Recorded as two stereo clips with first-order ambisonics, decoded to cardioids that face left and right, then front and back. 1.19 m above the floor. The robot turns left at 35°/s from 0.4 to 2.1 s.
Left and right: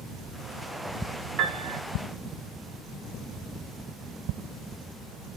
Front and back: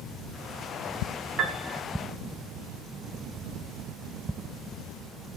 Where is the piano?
125° right, 0.6 m; by 1.8 s 140° right, 0.6 m.